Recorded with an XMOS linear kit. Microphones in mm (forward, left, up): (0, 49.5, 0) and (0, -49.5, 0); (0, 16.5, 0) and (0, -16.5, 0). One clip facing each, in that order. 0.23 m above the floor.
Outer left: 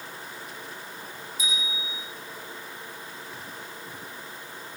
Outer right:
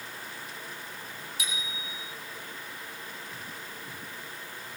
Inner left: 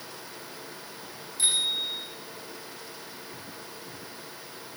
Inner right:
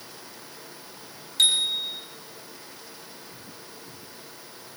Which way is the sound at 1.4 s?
70° right (ahead or behind).